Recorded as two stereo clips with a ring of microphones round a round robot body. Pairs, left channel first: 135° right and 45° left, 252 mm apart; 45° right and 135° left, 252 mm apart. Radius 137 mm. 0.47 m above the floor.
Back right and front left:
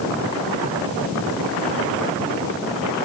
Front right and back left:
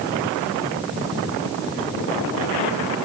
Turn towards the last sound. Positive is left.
No sound to turn to.